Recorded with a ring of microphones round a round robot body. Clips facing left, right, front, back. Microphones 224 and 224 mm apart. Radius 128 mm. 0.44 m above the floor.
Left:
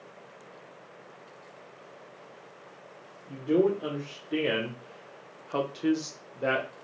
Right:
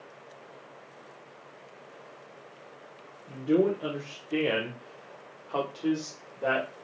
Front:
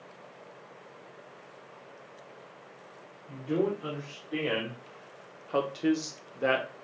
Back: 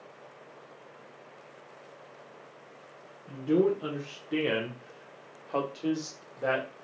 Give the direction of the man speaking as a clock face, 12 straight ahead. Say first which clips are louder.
Even, back 4 dB; 6 o'clock.